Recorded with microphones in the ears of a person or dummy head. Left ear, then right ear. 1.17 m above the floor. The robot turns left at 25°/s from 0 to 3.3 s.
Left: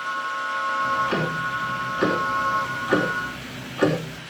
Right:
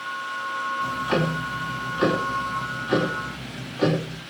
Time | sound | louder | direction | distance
0.8 | ticking | left 1 dB | 165° right | 4 m